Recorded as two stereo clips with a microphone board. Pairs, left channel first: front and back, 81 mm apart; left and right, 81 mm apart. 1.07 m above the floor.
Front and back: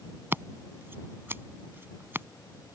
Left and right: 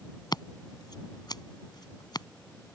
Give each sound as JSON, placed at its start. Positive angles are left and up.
{"t": 0.3, "sound": "scissors", "azimuth_deg": 120}